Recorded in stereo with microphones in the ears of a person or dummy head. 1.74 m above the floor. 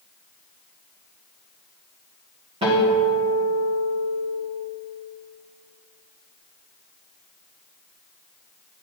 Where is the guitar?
25° right (ahead or behind), 1.5 m.